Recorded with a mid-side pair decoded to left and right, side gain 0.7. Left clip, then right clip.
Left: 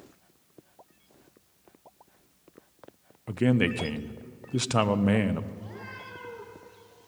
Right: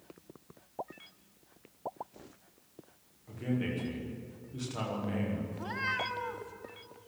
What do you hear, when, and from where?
3.3 s a man speaking: 55° left, 1.2 m
5.5 s a cat meowing: 50° right, 6.5 m